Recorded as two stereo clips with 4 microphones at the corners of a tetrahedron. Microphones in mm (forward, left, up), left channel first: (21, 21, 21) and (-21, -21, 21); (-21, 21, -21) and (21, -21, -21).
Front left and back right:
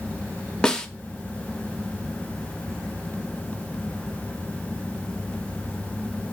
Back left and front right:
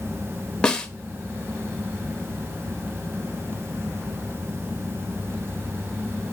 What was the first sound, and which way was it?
A snare drum, 90° left.